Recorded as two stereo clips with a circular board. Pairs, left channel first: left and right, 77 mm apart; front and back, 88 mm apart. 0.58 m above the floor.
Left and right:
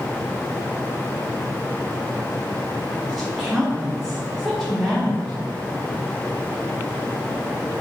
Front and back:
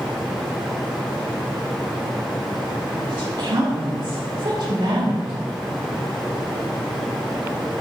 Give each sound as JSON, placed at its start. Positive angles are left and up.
{"t": 3.1, "sound": "a woman speaking", "azimuth_deg": -175, "distance_m": 1.4}